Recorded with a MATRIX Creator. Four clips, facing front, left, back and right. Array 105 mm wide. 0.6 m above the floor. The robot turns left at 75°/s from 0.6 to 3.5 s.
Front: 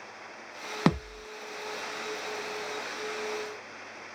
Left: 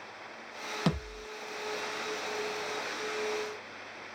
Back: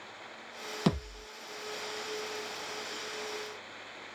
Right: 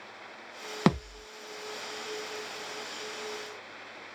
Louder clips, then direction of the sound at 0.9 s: Right 7 dB, front 4 dB; 45° right.